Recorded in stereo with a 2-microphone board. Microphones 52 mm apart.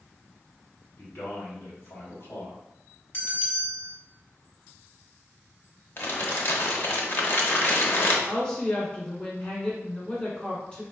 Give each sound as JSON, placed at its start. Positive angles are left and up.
{"t": 1.0, "sound": "a man speaking", "side_deg": 45, "distance_m": 1.8}
{"t": 3.1, "sound": "a bell", "side_deg": 45, "distance_m": 1.6}
{"t": 6.0, "sound": "crumpling", "side_deg": 50, "distance_m": 0.8}
{"t": 8.3, "sound": "a woman speaking", "side_deg": 20, "distance_m": 1.6}